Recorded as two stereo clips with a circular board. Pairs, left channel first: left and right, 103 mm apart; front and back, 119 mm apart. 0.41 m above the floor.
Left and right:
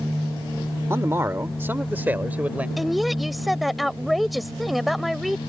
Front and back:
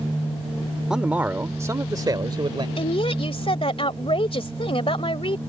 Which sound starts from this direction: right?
A man speaking, at 0.9 s.